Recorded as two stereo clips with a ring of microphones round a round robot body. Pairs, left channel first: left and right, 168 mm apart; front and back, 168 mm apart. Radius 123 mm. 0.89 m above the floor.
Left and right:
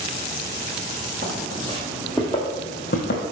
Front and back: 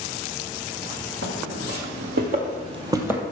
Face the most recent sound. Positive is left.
turn(degrees=100)